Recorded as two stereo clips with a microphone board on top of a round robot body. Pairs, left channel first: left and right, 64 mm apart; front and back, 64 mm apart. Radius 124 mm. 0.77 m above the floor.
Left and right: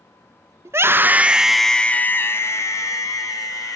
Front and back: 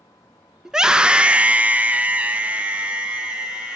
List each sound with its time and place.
0.7 s a scream: 100° right, 0.8 m; by 3.8 s 105° left, 1.5 m